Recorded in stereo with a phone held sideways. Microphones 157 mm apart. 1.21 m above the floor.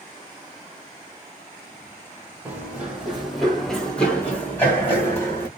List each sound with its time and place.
2.5 s running footsteps: 10° right (ahead or behind), 1.6 m; by 5.5 s 15° left (ahead or behind), 2.5 m